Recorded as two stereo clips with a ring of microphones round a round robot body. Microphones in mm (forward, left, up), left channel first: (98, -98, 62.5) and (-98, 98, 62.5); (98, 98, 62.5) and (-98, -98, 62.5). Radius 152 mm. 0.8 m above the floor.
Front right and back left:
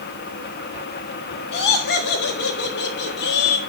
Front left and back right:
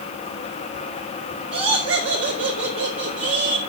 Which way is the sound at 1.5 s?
95° right.